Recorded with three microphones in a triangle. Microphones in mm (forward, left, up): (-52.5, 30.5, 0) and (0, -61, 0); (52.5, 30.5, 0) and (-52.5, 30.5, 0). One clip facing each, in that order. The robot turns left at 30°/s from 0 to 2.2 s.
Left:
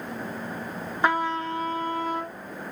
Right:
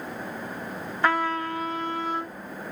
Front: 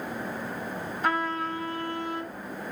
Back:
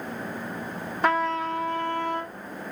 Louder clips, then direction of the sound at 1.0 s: Even, back 5 dB; 170° right.